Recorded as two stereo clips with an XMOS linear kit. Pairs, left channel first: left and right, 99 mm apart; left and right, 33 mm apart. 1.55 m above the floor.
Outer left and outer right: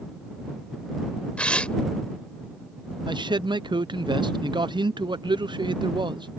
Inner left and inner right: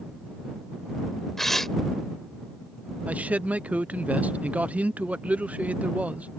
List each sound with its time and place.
1.4 s tearing paper: 10° left (ahead or behind)
3.1 s a man speaking: 50° right (ahead or behind)